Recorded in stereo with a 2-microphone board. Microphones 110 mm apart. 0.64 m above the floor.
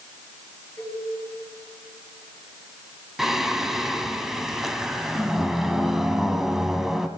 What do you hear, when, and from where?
0.8 s a cowbell: 35° left (ahead or behind), 5.5 m
3.2 s singing: 5° right (ahead or behind), 1.4 m